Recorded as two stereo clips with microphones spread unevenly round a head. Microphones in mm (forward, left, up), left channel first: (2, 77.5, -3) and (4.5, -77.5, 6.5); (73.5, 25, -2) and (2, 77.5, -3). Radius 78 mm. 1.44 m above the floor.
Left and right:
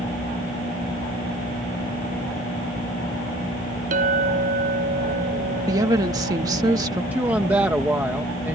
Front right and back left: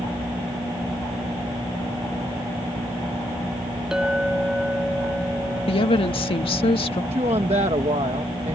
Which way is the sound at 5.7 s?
20° right.